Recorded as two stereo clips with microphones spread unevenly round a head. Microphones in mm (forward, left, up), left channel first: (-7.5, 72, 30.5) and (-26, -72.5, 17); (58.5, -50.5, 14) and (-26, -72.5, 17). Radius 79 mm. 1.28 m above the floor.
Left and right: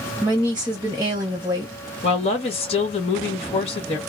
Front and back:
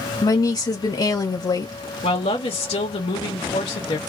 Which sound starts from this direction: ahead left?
A woman speaking, at 2.0 s.